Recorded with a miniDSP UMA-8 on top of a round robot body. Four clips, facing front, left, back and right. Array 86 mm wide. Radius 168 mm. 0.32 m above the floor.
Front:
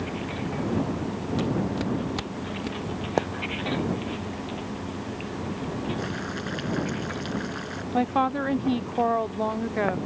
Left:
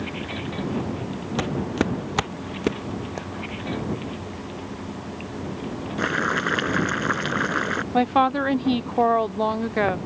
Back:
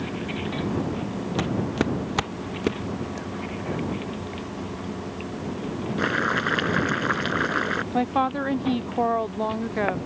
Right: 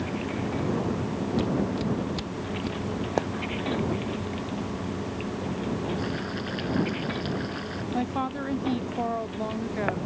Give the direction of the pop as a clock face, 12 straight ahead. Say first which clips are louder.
Right 7 dB, front 9 dB; 1 o'clock.